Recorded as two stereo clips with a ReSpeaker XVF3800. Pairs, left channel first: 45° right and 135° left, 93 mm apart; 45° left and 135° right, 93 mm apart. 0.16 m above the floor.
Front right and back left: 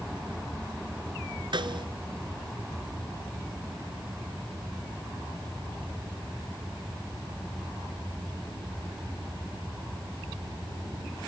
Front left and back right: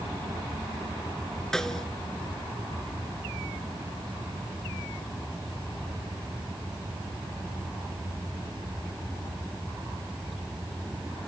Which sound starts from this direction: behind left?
A snare drum, at 1.5 s.